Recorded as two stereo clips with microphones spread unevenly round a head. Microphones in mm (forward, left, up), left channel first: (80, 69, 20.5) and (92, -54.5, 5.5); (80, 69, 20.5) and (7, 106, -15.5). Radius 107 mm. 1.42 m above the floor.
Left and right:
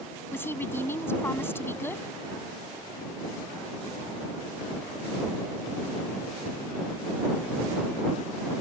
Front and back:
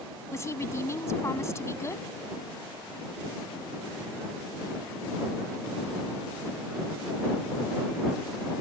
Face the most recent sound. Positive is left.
turn(degrees=25)